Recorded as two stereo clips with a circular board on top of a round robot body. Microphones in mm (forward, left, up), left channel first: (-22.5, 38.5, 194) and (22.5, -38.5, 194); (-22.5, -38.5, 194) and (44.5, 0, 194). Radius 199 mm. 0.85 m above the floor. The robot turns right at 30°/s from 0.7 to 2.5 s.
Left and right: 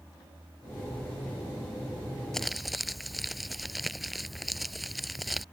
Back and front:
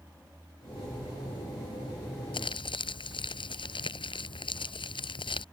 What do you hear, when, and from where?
2.3 s crumpling: 155° right; by 5.5 s 150° right